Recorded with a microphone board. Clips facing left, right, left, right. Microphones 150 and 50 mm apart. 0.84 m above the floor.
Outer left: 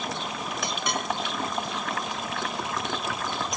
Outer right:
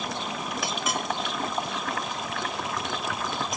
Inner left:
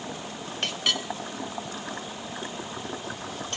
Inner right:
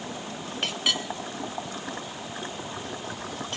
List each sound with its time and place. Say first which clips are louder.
0.6 s a clink: outer left 1 dB, even; 5° right (ahead or behind), 0.5 m